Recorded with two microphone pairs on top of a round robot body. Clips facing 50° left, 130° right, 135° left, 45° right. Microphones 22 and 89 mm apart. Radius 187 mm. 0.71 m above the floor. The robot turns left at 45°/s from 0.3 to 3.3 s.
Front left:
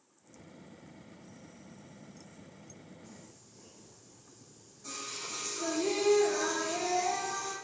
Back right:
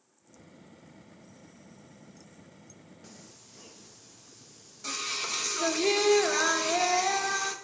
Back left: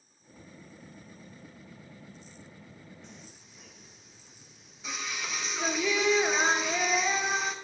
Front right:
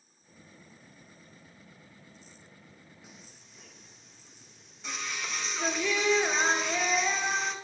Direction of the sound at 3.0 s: 120° right.